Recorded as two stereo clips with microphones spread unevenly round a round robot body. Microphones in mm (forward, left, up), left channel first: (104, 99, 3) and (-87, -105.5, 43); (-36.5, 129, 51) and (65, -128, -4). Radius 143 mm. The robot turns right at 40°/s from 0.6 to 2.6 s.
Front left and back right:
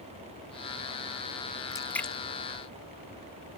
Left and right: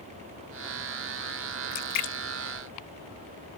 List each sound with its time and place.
1.7 s a splash: 115° left; by 2.2 s 130° left